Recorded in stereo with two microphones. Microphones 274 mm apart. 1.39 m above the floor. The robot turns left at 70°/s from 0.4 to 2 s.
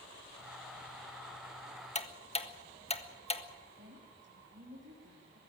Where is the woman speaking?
45° right (ahead or behind), 3 m.